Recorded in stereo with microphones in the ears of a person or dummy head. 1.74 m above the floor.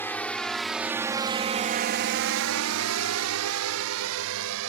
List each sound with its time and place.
0.0 s a drone: 15° left (ahead or behind); by 4.7 s 70° right (ahead or behind)